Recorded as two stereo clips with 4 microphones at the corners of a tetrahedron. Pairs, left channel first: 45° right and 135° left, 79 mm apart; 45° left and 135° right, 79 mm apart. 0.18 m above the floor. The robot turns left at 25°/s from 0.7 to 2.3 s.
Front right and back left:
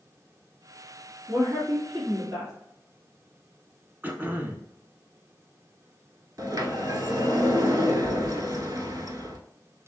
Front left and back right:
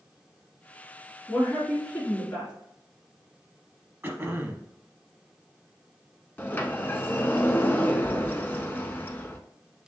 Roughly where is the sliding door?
Left.